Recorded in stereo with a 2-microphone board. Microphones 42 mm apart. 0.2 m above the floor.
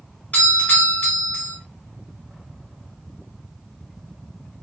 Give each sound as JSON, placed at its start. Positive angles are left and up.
{"t": 0.3, "sound": "a doorbell", "side_deg": 35, "distance_m": 2.5}